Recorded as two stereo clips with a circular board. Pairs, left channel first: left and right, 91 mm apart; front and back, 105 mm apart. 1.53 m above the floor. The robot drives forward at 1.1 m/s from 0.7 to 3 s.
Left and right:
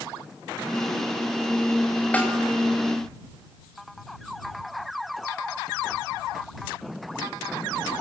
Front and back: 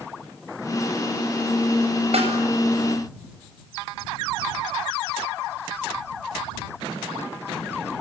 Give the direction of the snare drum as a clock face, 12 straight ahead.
7 o'clock.